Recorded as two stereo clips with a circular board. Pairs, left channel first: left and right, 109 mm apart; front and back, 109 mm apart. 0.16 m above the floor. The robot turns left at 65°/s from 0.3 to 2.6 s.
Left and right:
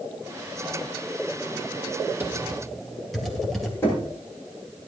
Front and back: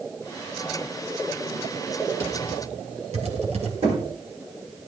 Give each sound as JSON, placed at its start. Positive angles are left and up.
{"t": 2.2, "sound": "typing on a keyboard", "azimuth_deg": -155, "distance_m": 2.5}
{"t": 3.8, "sound": "knocking", "azimuth_deg": 160, "distance_m": 6.5}